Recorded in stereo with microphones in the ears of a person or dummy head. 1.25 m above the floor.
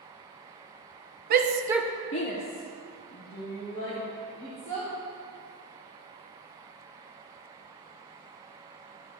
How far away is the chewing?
I don't hear chewing.